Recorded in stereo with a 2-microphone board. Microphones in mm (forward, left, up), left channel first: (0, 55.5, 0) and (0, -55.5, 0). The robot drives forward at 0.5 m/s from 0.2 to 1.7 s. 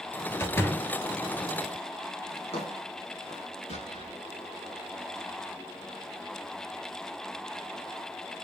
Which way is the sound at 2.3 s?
65° left (ahead or behind).